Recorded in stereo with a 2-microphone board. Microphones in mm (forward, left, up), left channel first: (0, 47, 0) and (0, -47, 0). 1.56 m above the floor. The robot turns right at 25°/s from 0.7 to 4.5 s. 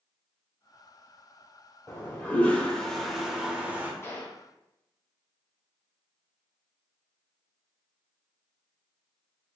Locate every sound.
1.9 s a toilet flushing: 150° left, 0.6 m; by 3.9 s 160° right, 0.6 m
4.0 s a gunshot: 25° left (ahead or behind), 0.6 m; by 4.4 s 35° left (ahead or behind), 0.6 m